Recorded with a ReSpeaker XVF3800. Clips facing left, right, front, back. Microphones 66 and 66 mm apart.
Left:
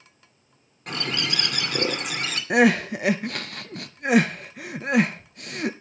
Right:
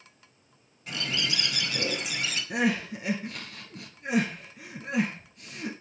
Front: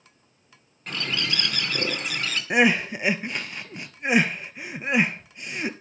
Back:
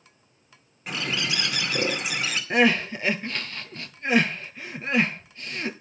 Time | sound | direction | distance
0.9 | a bird | 100° left | 2 m
2.5 | crying | 75° left | 1.0 m